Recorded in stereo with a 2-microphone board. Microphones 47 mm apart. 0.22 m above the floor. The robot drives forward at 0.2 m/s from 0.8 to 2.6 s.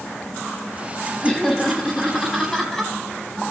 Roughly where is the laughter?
Centre.